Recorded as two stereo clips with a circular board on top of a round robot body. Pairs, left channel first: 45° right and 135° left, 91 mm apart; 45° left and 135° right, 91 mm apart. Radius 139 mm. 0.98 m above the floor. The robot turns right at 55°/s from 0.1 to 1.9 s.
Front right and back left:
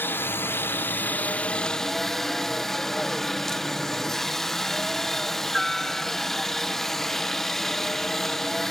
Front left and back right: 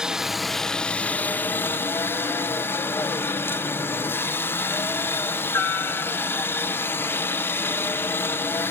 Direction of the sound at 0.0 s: 65° right.